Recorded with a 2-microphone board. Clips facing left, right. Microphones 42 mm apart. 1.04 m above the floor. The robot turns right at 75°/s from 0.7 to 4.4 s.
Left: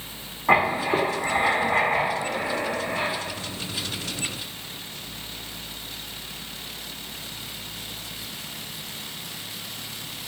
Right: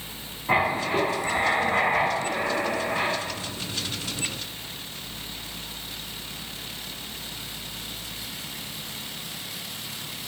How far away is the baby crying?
I don't hear a baby crying.